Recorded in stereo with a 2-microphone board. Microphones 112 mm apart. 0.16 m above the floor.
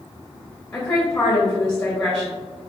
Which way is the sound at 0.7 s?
15° left (ahead or behind).